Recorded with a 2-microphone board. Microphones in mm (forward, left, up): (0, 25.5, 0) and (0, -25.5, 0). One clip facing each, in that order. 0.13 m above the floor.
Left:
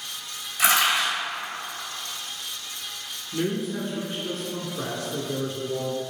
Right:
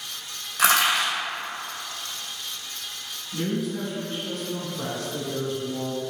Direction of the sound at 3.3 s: 25° left (ahead or behind).